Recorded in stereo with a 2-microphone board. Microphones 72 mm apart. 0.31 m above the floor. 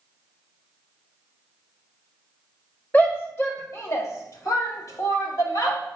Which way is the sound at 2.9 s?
25° left (ahead or behind).